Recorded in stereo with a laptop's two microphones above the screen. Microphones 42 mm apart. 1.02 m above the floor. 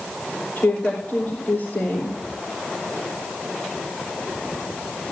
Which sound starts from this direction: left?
A woman speaking, at 0.6 s.